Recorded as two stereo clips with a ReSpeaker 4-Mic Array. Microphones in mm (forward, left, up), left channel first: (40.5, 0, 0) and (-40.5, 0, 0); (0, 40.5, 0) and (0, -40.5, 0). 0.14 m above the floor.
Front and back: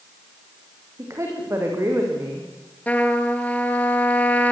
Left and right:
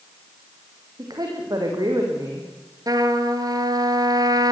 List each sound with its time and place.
1.0 s a woman speaking: 125° right, 6.5 m
2.9 s a trumpet: 70° right, 1.9 m